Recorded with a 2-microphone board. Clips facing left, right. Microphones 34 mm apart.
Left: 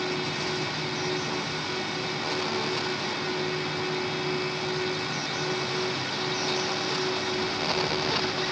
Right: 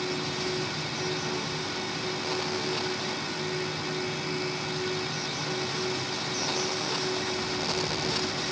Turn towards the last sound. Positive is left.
No sound to turn to.